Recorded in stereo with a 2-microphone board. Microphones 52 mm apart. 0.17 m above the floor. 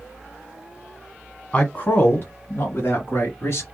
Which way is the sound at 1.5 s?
25° left (ahead or behind).